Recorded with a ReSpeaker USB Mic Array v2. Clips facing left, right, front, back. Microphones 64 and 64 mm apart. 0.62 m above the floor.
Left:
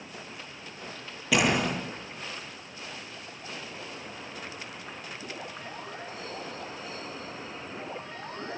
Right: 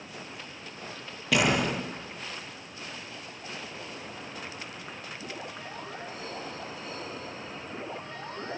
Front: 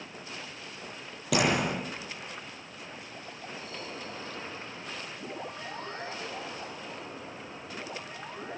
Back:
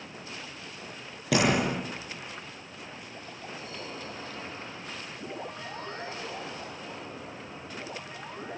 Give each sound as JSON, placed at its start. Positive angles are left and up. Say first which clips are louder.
{"t": 1.3, "sound": "a door slam", "louder": "even, back 2 dB", "azimuth_deg": 180, "distance_m": 10.0}